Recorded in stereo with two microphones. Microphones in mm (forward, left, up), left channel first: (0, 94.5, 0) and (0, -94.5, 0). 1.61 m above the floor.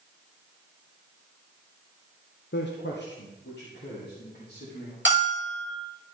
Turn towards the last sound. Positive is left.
turn(degrees=85)